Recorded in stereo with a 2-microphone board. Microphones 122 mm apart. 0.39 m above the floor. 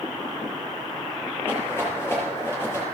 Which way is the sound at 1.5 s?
20° left (ahead or behind).